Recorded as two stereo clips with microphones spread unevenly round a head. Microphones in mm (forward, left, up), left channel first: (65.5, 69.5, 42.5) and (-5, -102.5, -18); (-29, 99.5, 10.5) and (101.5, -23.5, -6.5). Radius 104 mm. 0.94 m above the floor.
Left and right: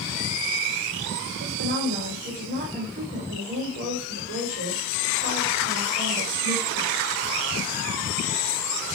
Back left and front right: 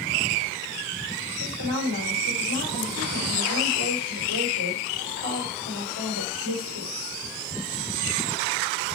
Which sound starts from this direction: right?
A woman speaking, at 1.4 s.